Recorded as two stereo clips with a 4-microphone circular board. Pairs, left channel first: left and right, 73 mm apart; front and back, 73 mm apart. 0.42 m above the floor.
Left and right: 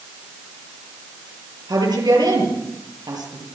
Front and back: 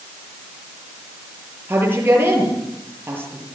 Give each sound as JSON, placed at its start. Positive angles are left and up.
{"t": 1.7, "sound": "a woman speaking", "azimuth_deg": -120, "distance_m": 9.0}